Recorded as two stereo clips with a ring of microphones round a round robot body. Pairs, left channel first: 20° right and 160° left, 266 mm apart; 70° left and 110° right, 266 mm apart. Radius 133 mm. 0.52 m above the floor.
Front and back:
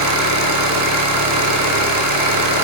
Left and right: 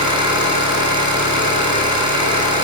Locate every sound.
0.0 s an engine running: 175° left, 3.5 m